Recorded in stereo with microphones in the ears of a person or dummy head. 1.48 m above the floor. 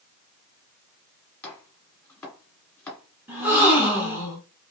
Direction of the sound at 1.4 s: 10° left (ahead or behind).